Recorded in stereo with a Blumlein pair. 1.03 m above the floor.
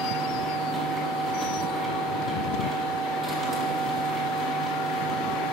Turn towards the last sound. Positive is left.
turn(degrees=-15)